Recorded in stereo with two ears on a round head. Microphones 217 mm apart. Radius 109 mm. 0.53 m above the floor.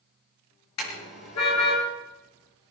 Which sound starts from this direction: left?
A car horn, at 0.8 s.